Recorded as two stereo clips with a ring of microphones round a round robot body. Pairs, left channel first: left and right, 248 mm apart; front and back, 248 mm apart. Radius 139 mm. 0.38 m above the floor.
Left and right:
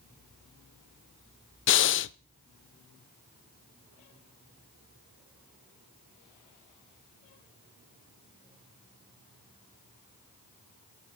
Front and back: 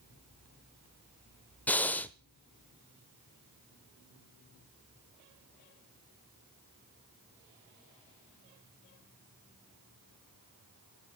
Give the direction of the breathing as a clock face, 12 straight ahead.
9 o'clock.